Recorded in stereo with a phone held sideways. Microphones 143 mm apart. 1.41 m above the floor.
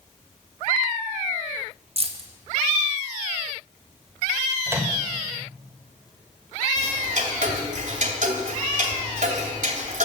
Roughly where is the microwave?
Centre.